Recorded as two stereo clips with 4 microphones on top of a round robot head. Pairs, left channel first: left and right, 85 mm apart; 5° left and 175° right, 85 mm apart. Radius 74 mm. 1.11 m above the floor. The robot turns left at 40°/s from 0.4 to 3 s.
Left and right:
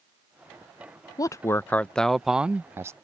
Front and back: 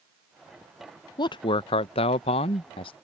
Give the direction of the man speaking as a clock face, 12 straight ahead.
11 o'clock.